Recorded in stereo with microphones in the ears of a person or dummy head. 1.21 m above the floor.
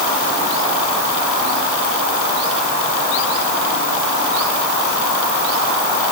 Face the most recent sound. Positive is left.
No sound to turn to.